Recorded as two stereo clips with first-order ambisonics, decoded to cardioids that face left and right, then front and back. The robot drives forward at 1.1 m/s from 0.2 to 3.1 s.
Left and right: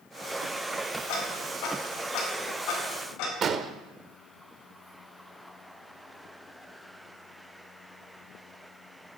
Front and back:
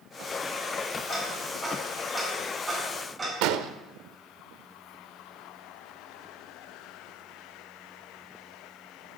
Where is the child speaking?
I don't hear a child speaking.